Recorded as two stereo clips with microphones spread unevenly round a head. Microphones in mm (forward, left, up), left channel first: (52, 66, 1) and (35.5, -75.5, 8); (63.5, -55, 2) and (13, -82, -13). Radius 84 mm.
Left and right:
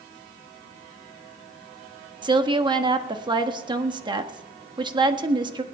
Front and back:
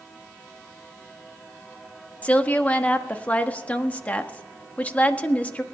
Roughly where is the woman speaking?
Ahead right.